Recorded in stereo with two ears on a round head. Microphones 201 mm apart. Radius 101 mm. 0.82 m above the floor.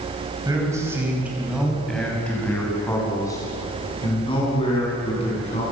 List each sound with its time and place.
0.5 s a man speaking: 15° right (ahead or behind), 5.5 m; by 5.6 s 30° left (ahead or behind), 9 m